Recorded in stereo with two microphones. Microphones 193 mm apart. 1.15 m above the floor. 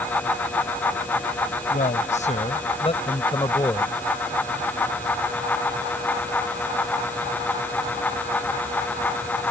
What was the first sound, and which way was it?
A man speaking, 45° left (ahead or behind).